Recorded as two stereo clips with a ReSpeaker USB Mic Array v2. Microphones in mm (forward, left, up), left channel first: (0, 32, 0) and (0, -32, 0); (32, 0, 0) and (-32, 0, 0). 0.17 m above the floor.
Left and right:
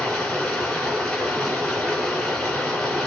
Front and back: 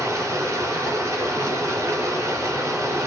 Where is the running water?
165° left, 1.7 m.